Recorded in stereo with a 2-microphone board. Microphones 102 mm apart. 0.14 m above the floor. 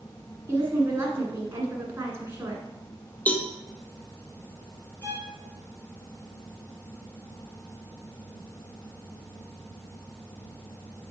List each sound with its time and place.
0.5 s a woman speaking: 25° right (ahead or behind), 1.8 m
3.3 s a cowbell: 15° left (ahead or behind), 0.6 m
5.0 s a violin: 20° right (ahead or behind), 2.0 m